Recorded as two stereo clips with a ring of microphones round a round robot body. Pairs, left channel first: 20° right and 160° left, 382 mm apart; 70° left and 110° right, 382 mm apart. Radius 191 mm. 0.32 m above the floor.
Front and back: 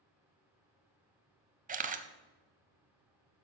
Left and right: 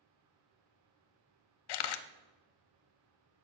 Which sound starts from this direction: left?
A camera shutter, at 1.7 s.